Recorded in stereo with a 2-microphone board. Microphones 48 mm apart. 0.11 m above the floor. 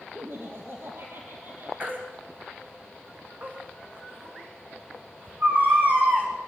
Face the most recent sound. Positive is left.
turn(degrees=-40)  # may be behind; listen again after turning